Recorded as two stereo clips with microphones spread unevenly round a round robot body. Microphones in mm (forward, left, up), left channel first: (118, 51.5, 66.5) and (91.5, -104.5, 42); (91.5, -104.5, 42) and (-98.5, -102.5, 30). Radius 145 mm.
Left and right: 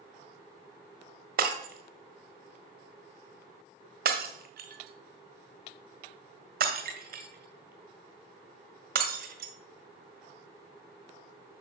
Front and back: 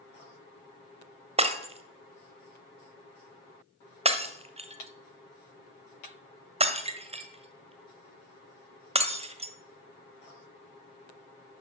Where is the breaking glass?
125° right, 1.4 m.